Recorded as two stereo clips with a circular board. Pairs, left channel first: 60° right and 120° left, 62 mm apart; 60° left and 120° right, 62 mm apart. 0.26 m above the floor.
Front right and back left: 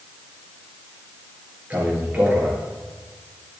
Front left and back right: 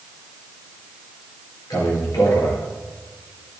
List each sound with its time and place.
1.7 s a man speaking: 55° left, 5 m